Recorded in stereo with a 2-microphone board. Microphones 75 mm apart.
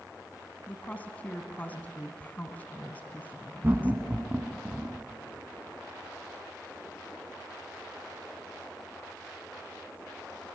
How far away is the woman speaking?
About 1.5 m.